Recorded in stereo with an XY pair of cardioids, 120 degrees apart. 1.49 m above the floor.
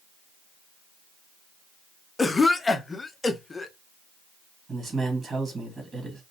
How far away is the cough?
About 0.5 m.